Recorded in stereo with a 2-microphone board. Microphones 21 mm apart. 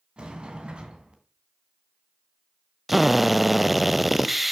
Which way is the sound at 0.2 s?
55° right (ahead or behind).